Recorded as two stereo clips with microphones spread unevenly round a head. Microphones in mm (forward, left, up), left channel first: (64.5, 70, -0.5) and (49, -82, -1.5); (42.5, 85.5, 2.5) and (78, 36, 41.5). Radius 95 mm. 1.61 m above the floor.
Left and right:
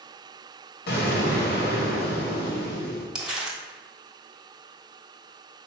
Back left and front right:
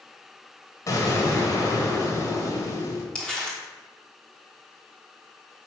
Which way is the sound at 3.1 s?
15° right.